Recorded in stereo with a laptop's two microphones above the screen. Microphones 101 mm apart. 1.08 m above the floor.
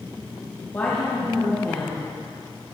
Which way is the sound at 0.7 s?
25° left (ahead or behind).